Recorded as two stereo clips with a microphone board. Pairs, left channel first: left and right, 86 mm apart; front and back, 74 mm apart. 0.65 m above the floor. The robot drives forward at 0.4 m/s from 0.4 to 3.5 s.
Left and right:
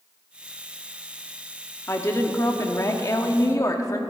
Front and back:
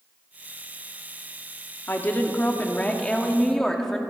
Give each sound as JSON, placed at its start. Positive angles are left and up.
{"t": 1.9, "sound": "a woman speaking", "azimuth_deg": 50, "distance_m": 1.6}